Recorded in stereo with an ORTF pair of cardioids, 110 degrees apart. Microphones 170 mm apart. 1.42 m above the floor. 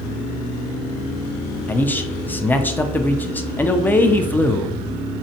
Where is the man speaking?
10° left, 0.6 m.